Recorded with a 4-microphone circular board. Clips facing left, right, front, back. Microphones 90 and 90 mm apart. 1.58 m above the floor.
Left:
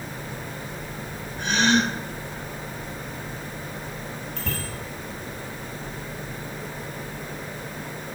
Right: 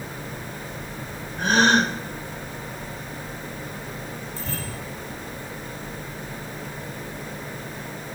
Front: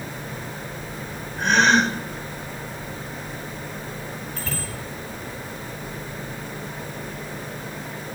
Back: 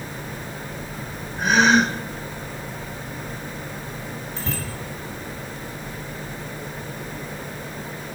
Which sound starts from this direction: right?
A gasp, at 1.4 s.